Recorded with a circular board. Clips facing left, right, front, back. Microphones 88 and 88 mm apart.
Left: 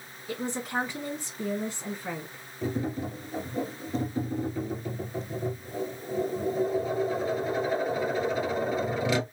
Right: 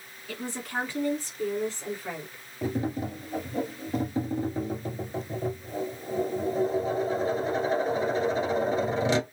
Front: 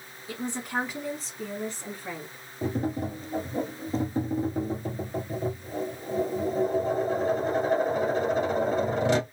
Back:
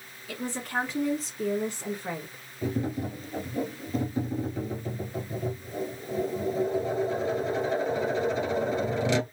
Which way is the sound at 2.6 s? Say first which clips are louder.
Right 1 dB, front 1 dB; 30° right.